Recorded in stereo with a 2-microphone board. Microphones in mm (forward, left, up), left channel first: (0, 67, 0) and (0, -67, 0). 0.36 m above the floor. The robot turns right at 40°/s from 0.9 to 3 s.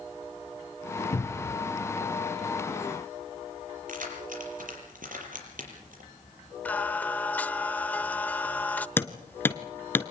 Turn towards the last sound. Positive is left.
turn(degrees=15)  # may be behind; listen again after turning